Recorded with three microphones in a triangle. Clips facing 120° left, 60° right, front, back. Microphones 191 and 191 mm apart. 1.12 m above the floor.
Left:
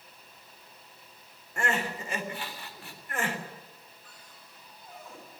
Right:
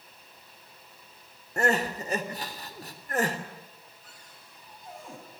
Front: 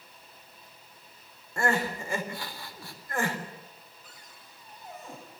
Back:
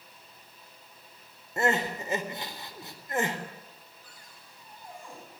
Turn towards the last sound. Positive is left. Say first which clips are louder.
# even, front 1 dB
turn(degrees=-70)